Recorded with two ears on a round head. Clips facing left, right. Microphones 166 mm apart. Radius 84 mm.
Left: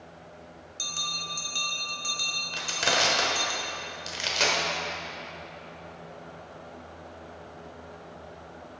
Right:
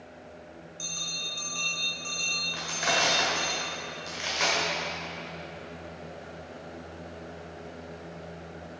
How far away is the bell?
About 1.1 m.